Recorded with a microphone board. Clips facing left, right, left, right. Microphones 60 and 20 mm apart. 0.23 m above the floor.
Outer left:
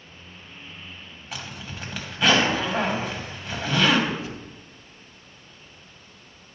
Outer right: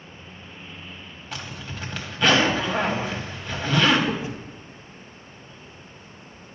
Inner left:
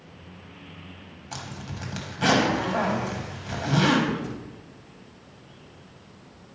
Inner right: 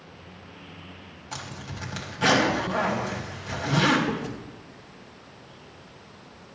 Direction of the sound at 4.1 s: 25° right (ahead or behind).